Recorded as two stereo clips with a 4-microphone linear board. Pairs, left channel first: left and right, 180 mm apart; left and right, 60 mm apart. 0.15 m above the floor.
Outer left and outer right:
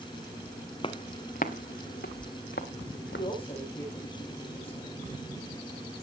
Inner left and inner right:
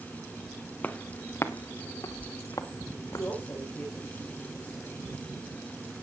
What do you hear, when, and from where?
0.8 s footsteps: 30° left (ahead or behind), 1.5 m; by 3.3 s 80° left, 3.5 m
3.1 s a woman speaking: 30° left (ahead or behind), 9.5 m